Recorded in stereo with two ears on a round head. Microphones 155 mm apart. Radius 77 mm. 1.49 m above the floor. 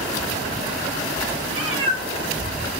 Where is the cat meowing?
30° right (ahead or behind), 0.8 m.